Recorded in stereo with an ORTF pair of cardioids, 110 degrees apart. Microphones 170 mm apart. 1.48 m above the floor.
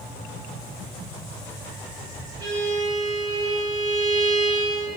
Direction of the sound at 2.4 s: 25° right.